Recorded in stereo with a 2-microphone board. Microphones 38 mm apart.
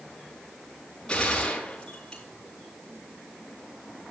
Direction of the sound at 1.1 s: 25° left (ahead or behind).